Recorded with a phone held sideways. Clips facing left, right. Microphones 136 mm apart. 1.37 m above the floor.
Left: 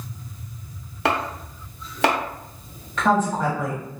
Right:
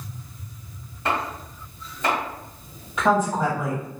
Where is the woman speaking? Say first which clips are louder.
Even; 10° right (ahead or behind), 1.2 m.